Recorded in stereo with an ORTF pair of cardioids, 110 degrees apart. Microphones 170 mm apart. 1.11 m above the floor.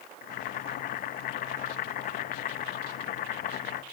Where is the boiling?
65° left, 1.5 m.